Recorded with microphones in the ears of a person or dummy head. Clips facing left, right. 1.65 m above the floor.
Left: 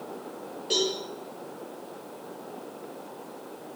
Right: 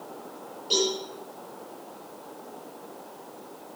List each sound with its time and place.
0.7 s a cowbell: 30° left (ahead or behind), 9.5 m